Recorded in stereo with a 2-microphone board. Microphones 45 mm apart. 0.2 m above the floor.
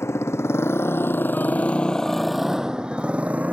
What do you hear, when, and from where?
0.0 s a motorcycle: 80° left; by 3.5 s 35° right (ahead or behind)